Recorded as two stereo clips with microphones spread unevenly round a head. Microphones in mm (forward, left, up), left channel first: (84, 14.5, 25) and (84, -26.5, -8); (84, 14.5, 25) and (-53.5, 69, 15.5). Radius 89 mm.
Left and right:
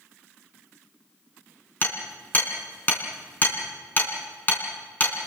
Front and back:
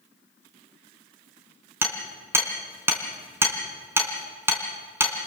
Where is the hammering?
85° left, 3 m.